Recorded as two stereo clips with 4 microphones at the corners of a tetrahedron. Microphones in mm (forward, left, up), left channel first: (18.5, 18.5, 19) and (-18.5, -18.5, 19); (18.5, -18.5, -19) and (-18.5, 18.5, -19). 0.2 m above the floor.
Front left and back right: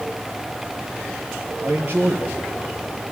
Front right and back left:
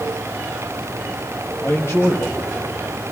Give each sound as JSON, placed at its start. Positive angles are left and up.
{"t": 1.6, "sound": "a man speaking", "azimuth_deg": -90, "distance_m": 5.0}